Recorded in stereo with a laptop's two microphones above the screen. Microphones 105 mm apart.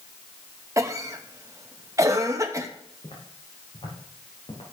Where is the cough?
30° right (ahead or behind), 1.0 m.